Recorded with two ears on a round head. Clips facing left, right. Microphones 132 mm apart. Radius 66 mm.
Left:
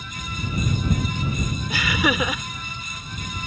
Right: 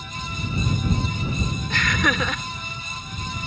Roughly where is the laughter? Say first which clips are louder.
Left 2 dB; centre.